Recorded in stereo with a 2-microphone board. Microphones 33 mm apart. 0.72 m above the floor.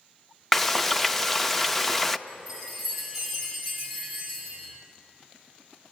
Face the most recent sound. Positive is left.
turn(degrees=-5)  # may be behind; listen again after turning